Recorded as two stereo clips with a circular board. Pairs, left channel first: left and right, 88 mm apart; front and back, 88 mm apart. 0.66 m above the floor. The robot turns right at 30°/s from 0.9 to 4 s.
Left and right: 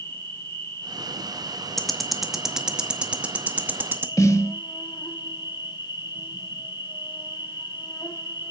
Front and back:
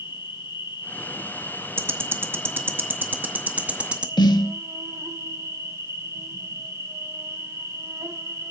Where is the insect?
30° left, 1.7 m; by 8.5 s 125° left, 1.7 m.